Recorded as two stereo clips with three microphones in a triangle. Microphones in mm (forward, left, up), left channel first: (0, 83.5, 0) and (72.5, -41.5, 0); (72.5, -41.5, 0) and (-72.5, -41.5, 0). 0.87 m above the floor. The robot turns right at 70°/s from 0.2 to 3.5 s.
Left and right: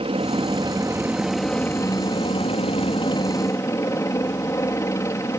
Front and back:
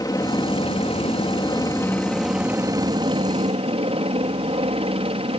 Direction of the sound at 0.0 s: 50° right.